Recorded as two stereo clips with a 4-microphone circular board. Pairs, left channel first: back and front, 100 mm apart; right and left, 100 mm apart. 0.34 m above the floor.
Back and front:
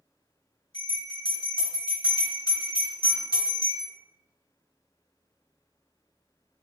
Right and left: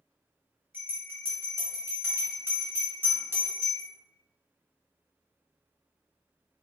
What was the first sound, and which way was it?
A bell, 150° left.